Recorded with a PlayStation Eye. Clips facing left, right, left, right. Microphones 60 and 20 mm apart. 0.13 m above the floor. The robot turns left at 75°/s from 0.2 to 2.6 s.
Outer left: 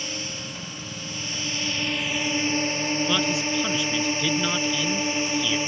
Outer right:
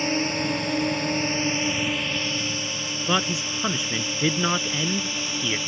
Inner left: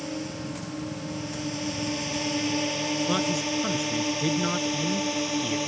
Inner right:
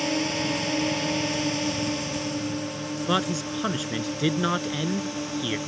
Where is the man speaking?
25° right (ahead or behind).